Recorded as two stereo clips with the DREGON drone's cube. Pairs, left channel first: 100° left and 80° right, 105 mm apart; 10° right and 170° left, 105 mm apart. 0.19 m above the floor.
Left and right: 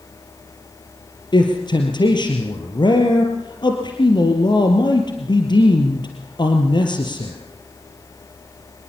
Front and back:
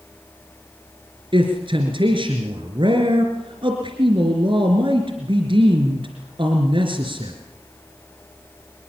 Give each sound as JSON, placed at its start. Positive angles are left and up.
{"t": 1.3, "sound": "a man speaking", "azimuth_deg": 140, "distance_m": 3.0}